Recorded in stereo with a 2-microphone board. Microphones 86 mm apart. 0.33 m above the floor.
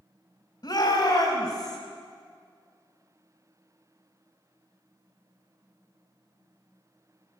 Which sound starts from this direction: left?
A shout, at 0.6 s.